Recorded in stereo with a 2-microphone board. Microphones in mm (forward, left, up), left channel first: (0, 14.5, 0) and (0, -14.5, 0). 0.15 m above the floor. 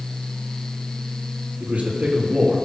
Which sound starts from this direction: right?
A man speaking, at 1.6 s.